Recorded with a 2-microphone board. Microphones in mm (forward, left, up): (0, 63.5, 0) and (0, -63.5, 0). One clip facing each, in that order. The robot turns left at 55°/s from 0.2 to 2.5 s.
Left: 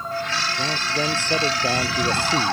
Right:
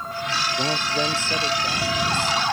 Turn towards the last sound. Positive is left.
turn(degrees=95)